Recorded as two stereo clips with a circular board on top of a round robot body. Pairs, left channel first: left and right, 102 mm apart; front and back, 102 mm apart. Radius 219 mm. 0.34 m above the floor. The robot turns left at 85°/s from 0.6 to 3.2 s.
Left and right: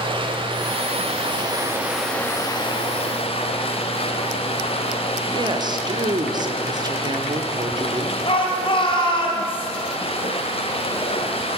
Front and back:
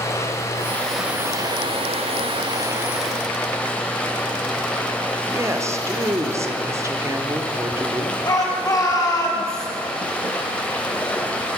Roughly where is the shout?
Ahead left.